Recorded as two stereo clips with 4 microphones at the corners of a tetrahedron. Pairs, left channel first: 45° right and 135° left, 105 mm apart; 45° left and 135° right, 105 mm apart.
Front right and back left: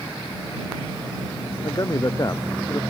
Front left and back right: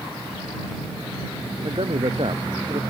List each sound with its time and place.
1.6 s a man speaking: 100° right; by 2.8 s 105° right